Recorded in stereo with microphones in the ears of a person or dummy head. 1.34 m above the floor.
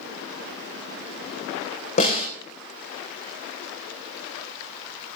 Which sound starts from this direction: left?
A snare drum, at 2.0 s.